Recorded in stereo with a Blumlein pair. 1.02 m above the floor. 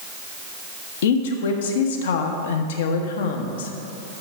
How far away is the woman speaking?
About 1.0 m.